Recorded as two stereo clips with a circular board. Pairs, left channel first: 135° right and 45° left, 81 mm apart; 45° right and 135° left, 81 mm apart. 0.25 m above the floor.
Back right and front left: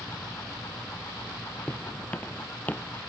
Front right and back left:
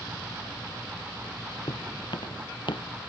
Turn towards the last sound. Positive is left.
turn(degrees=-65)